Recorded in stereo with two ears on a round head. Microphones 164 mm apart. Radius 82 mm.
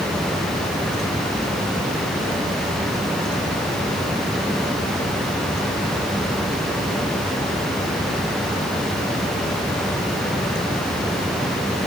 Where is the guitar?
No guitar in this recording.